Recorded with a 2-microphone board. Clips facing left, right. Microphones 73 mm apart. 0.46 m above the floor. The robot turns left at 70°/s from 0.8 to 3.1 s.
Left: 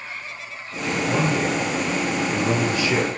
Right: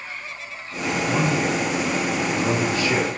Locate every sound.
1.1 s a man speaking: 40° left, 1.7 m; by 3.1 s 100° right, 1.7 m